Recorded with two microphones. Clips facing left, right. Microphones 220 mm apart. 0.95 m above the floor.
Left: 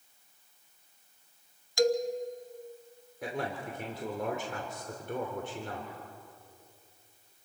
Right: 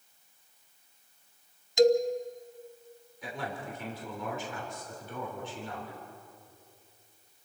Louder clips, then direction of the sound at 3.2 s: Left 3 dB; 55° left (ahead or behind).